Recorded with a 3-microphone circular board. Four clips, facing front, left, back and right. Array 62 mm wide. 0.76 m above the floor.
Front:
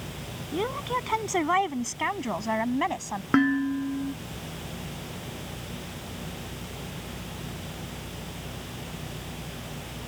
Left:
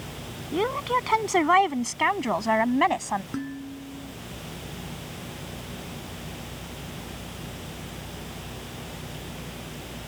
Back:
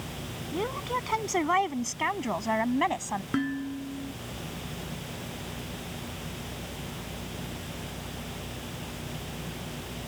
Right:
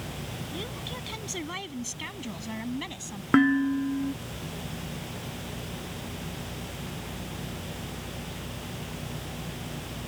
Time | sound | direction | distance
0.5 | a woman speaking | 80° left | ?
3.3 | dishes clattering | 55° right | ?